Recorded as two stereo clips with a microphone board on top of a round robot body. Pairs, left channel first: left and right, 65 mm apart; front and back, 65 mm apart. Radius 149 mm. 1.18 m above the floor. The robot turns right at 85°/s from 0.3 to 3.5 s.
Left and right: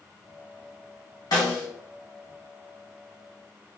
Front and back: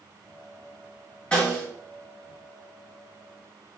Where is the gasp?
I don't hear a gasp.